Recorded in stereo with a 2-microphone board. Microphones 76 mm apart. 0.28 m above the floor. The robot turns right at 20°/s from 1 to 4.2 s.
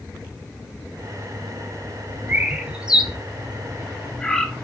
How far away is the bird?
About 0.6 m.